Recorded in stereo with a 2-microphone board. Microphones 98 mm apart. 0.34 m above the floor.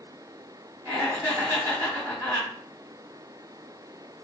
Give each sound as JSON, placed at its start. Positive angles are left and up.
{"t": 0.8, "sound": "laughter", "side_deg": -30, "distance_m": 1.4}